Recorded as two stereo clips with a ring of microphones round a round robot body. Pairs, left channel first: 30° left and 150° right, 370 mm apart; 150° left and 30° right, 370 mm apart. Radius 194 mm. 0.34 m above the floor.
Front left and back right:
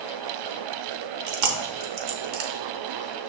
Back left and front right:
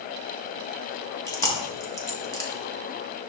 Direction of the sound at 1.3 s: 130° right.